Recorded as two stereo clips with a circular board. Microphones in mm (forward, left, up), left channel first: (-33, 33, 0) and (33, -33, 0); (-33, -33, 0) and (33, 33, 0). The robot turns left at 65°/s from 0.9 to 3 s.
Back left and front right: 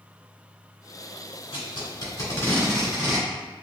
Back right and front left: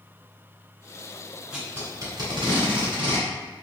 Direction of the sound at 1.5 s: 125° left.